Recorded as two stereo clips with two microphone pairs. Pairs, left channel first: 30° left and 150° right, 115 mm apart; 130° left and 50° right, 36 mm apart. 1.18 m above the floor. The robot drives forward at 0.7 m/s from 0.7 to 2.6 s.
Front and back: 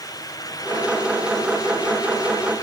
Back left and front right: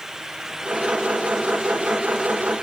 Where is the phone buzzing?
I don't hear a phone buzzing.